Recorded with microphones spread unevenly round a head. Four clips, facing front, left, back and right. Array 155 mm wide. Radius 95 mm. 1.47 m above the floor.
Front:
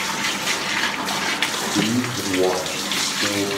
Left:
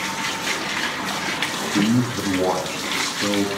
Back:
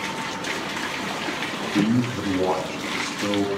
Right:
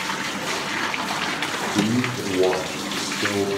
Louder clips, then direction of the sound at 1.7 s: Left 3 dB, back 1 dB; 105° left.